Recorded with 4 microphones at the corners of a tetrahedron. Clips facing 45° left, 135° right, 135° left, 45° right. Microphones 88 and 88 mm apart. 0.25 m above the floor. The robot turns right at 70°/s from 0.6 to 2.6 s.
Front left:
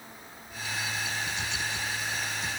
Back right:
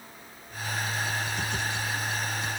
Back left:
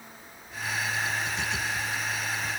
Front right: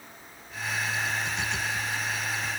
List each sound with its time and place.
Only background noise.